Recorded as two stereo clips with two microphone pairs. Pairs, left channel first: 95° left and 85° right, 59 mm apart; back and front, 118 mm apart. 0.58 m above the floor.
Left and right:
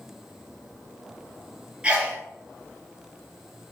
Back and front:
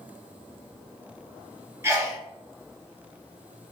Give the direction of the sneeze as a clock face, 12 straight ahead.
1 o'clock.